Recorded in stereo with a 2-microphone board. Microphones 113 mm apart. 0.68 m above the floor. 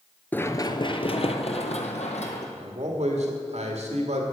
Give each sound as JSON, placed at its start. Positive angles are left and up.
{"t": 0.3, "sound": "running footsteps", "side_deg": 15, "distance_m": 0.7}
{"t": 2.6, "sound": "a man speaking", "side_deg": -70, "distance_m": 1.8}